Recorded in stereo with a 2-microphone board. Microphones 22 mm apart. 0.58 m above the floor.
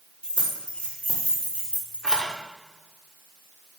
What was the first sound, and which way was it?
Keys jangling, 65° left (ahead or behind).